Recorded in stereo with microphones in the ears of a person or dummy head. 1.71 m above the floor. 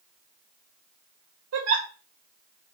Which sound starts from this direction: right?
A giggle, at 1.5 s.